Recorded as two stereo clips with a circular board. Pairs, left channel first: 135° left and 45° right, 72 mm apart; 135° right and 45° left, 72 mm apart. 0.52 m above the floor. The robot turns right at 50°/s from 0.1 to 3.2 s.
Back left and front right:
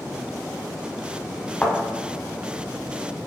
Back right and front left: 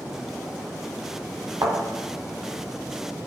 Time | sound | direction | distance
1.6 | a thud | 65° left | 0.8 m